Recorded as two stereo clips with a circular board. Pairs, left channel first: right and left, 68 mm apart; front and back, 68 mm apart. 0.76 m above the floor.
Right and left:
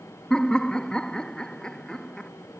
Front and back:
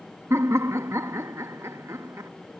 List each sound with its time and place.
0.3 s laughter: 165° right